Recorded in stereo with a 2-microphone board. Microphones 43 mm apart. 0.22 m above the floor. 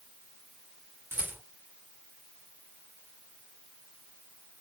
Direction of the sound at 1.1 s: 85° right.